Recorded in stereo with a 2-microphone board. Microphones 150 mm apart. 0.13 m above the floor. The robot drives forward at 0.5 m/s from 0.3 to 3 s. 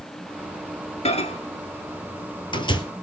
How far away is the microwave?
About 1.5 m.